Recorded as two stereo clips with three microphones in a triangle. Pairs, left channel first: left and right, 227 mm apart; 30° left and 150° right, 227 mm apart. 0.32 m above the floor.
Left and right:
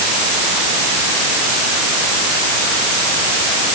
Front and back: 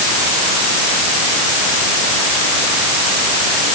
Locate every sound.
Only background noise.